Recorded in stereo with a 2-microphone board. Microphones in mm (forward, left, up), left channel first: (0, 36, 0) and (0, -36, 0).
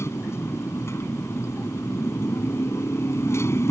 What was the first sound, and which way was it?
A motorcycle, 40° left (ahead or behind).